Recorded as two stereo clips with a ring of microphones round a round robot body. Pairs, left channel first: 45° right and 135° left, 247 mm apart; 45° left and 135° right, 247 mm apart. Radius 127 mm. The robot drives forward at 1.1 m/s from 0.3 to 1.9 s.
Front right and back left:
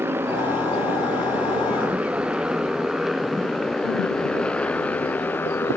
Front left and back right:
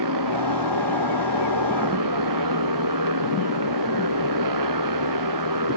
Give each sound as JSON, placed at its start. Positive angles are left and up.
{"t": 0.0, "sound": "a motorcycle", "azimuth_deg": -145}